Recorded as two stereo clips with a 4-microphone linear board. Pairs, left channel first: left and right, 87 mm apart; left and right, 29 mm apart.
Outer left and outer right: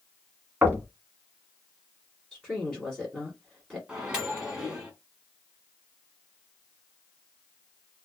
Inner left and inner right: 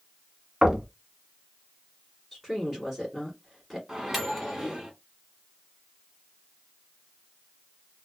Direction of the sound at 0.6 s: 20° right (ahead or behind).